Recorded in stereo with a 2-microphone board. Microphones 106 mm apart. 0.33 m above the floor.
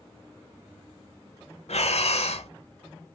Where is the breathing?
80° left, 0.6 m.